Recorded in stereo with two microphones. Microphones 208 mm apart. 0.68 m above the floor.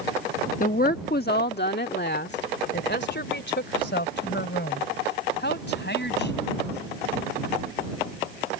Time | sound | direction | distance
0.6 | a woman speaking | 40° left (ahead or behind) | ?